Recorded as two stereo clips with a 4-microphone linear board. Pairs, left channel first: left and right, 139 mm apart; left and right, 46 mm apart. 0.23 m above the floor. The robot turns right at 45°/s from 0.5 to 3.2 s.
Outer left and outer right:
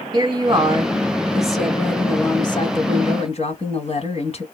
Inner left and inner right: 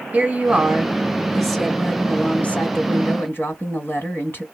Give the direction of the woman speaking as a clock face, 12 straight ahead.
1 o'clock.